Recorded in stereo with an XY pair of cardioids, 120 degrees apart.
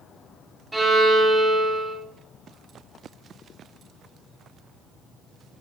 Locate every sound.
0.7 s a violin: 20° right, 0.8 m